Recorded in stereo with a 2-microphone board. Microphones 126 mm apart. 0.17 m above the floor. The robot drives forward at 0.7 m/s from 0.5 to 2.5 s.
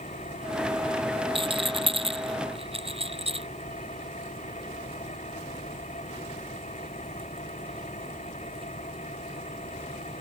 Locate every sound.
0.0 s an engine running: 70° left (ahead or behind); by 10.2 s 65° left (ahead or behind)
1.4 s a rattle: 45° right (ahead or behind); by 3.5 s 50° right (ahead or behind)